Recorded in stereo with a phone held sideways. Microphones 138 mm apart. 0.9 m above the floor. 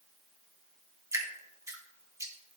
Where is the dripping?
20° right (ahead or behind), 2 m.